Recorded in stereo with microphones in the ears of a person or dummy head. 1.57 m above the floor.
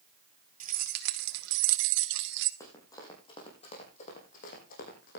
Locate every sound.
0.6 s keys jangling: 45° right (ahead or behind), 1.1 m; by 2.5 s 60° right (ahead or behind), 1.2 m
2.6 s running footsteps: 20° left (ahead or behind), 6 m; by 5.2 s 55° left (ahead or behind), 5.5 m